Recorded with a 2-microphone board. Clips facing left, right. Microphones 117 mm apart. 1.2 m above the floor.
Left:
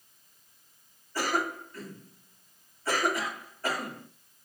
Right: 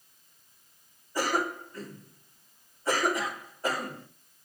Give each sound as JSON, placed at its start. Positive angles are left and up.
{"t": 1.1, "sound": "a cough", "side_deg": -20, "distance_m": 4.0}